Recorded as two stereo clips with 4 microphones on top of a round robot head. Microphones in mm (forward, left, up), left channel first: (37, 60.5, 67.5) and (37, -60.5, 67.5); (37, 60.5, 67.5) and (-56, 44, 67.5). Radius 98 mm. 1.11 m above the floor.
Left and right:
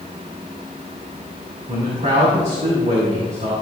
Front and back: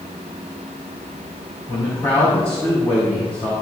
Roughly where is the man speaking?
Ahead right.